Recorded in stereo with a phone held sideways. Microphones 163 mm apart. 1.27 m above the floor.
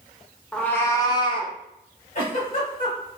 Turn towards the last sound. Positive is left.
turn(degrees=50)  # may be behind; listen again after turning